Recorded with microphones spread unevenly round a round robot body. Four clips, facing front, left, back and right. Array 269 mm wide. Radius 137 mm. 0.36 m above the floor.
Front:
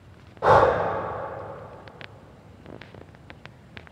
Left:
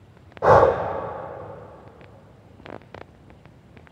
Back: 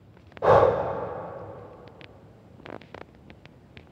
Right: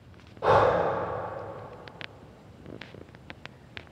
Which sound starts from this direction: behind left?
Breathing, at 0.4 s.